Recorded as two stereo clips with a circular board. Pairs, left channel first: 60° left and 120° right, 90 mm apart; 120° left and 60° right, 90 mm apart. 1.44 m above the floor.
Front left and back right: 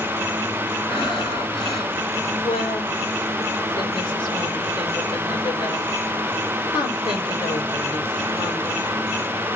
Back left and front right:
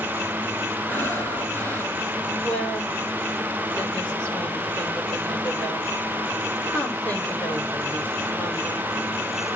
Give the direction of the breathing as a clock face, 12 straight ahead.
10 o'clock.